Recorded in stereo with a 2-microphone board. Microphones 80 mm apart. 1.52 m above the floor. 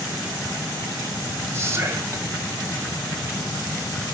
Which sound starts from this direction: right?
Whispering, at 1.5 s.